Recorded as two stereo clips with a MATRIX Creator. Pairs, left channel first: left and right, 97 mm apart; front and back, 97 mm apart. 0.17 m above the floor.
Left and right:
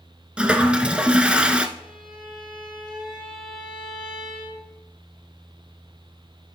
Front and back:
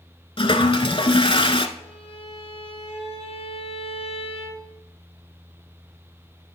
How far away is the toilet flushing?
About 0.6 m.